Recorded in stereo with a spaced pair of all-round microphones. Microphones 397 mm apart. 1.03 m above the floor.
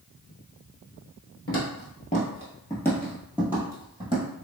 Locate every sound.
1.5 s footsteps: 30° left (ahead or behind), 1.1 m; by 4.2 s 15° right (ahead or behind), 1.6 m